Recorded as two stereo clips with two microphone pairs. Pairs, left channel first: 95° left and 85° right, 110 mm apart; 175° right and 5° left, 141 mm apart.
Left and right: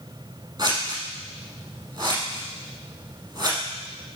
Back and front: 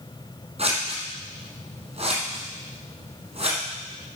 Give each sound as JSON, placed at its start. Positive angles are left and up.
{"t": 0.6, "sound": "scissors", "azimuth_deg": -30, "distance_m": 4.0}